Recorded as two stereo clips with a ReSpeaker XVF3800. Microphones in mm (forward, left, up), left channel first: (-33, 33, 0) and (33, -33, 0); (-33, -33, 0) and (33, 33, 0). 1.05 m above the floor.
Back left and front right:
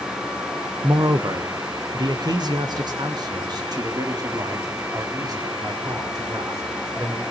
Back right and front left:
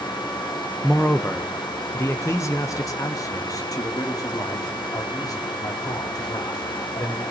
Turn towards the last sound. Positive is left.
turn(degrees=-90)